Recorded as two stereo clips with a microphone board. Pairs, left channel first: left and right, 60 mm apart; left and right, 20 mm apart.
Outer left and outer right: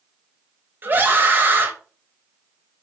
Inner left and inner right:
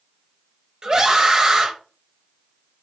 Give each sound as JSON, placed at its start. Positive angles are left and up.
{"t": 0.8, "sound": "a scream", "side_deg": -35, "distance_m": 1.0}